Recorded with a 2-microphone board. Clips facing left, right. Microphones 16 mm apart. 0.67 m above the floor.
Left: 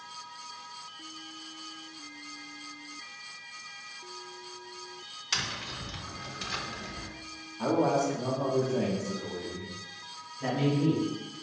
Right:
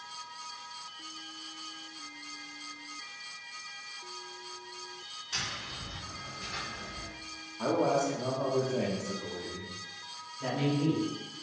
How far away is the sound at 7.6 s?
About 0.8 m.